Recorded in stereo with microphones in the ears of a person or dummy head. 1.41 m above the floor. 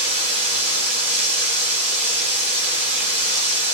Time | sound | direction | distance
0.0 | running water | 30° right (ahead or behind) | 1.3 m